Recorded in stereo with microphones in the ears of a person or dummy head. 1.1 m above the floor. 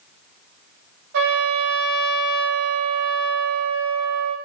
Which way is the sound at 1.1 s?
55° right (ahead or behind).